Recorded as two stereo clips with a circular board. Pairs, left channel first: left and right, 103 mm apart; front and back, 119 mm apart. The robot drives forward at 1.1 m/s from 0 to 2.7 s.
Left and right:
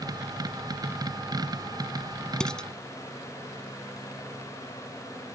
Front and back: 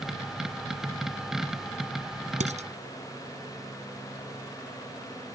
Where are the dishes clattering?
170° left; by 2.7 s 175° left.